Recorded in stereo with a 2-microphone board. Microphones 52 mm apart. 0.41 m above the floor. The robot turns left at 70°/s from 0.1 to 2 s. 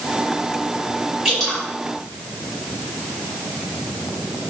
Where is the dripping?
5° right (ahead or behind), 1.9 m; by 1.6 s 15° left (ahead or behind), 1.9 m.